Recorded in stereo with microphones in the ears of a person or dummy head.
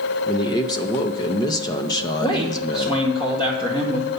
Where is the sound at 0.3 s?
15° left (ahead or behind), 0.5 m.